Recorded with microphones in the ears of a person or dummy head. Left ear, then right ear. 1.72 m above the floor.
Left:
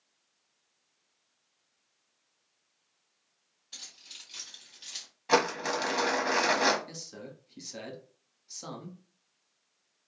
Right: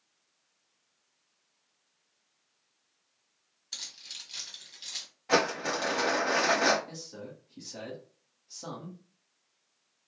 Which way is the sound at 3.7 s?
30° right (ahead or behind).